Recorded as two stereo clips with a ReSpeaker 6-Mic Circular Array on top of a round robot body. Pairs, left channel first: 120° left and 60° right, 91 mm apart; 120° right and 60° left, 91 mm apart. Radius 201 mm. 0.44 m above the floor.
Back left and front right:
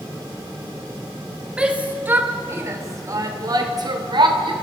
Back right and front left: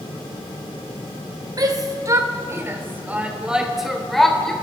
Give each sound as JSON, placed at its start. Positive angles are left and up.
{"t": 1.6, "sound": "a shout", "azimuth_deg": 20, "distance_m": 3.0}